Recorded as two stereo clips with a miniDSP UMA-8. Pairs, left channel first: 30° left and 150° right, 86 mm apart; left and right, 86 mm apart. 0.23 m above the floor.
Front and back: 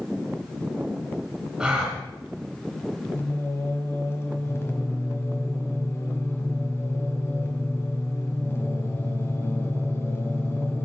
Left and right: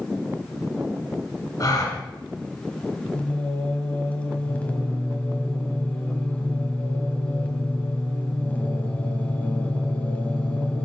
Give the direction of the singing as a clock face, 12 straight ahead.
11 o'clock.